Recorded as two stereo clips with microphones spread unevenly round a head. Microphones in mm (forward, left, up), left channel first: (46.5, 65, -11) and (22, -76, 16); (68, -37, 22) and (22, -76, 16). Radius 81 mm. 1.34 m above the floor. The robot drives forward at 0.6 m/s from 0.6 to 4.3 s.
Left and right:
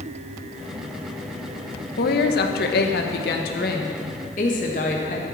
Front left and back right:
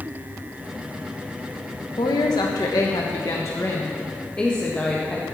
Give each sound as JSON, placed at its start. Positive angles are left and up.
{"t": 2.0, "sound": "a woman speaking", "azimuth_deg": 75, "distance_m": 1.5}